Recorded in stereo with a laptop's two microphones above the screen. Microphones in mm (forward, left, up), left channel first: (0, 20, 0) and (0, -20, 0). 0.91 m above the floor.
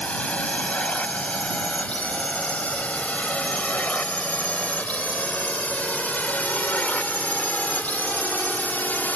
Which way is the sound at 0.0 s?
35° left (ahead or behind).